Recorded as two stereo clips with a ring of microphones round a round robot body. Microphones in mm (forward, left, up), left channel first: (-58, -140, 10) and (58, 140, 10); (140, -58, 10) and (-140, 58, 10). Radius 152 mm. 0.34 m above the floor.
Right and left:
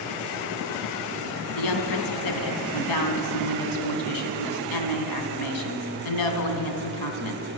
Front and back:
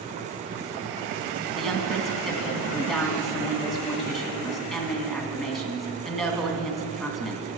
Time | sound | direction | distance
1.6 | a woman speaking | 110° right | 2.5 m